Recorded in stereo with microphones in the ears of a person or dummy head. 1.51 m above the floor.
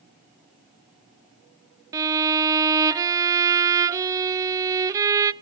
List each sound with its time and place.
1.9 s a violin: 20° right (ahead or behind), 0.5 m